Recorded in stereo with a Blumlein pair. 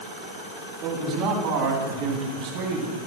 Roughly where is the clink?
I don't hear a clink.